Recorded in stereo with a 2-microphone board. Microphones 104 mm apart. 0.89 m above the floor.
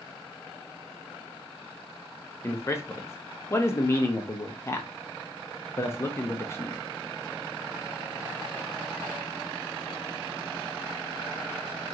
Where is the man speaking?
25° left (ahead or behind), 0.6 m.